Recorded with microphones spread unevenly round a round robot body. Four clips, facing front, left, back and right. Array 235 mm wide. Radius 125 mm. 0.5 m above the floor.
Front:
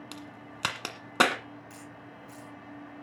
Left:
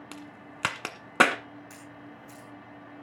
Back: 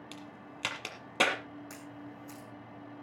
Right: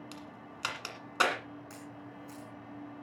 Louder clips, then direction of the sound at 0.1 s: Left 3 dB, front 3 dB; 65° left.